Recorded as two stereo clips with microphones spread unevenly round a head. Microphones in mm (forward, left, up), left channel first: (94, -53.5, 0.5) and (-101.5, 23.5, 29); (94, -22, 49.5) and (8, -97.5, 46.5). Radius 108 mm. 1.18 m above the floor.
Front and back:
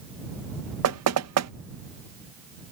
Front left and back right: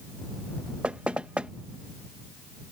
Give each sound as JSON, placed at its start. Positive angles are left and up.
{"t": 0.8, "sound": "knocking", "azimuth_deg": 135}